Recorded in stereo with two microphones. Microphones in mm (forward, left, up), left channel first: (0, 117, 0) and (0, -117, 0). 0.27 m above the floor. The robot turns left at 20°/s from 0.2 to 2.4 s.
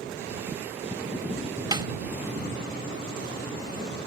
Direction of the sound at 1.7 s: 20° right (ahead or behind).